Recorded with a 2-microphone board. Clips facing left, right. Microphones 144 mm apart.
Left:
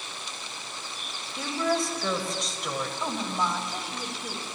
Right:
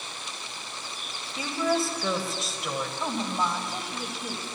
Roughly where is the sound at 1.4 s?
Centre.